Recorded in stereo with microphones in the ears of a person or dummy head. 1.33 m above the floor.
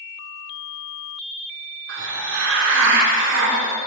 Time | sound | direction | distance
1.9 | a hiss | 65° right (ahead or behind) | 0.9 m